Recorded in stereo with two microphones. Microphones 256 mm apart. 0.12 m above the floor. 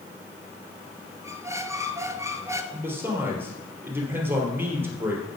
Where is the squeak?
10° right (ahead or behind), 0.8 m.